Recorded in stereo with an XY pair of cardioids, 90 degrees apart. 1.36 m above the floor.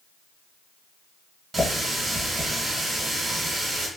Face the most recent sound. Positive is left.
turn(degrees=-45)